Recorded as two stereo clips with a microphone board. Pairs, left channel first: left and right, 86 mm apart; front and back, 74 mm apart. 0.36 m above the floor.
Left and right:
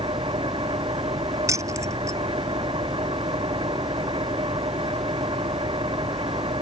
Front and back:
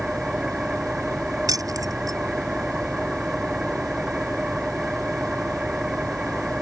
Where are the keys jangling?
145° right.